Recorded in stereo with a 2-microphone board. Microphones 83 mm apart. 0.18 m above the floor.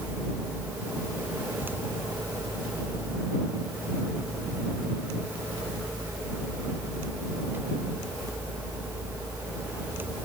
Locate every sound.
Only background noise.